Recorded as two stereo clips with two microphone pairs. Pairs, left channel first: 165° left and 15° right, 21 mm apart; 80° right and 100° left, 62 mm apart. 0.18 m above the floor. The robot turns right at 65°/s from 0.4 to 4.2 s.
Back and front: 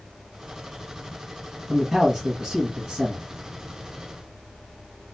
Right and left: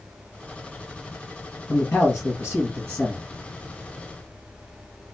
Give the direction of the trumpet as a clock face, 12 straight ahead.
No trumpet in this recording.